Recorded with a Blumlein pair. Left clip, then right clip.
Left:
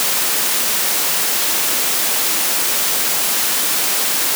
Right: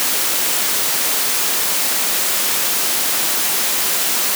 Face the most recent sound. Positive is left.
No sound to turn to.